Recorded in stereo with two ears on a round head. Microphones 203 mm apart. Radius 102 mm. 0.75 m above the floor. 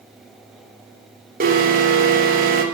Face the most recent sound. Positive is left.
turn(degrees=-40)  # may be behind; listen again after turning